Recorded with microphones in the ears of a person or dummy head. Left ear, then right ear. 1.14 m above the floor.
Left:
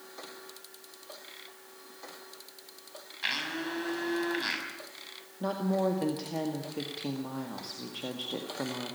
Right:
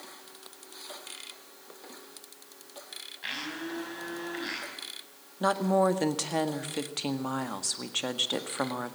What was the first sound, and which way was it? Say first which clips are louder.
A blender: left 4 dB; 25° left (ahead or behind).